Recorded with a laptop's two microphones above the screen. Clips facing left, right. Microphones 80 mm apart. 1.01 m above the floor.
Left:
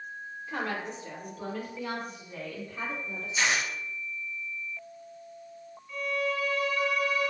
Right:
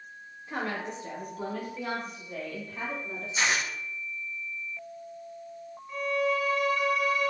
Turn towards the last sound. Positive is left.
turn(degrees=-30)  # may be behind; listen again after turning